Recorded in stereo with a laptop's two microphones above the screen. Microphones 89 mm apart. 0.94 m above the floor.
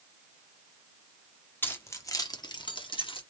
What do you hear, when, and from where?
1.6 s keys jangling: 25° left (ahead or behind), 1.4 m; by 3.2 s 80° left, 1.5 m